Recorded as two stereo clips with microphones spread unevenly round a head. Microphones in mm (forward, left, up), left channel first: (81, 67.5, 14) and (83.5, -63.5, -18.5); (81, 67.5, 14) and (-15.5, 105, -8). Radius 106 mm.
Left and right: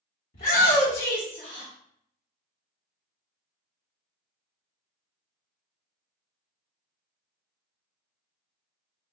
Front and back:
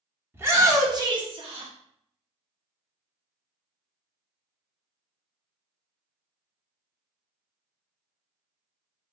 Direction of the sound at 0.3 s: 95° left.